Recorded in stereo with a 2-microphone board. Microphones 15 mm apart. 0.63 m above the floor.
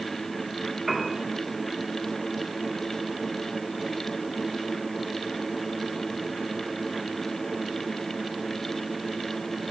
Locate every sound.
0.9 s a piano: 10° right (ahead or behind), 1.6 m